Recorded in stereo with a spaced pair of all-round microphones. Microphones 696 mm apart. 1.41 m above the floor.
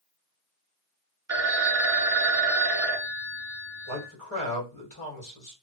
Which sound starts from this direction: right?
A phone ringing, at 1.3 s.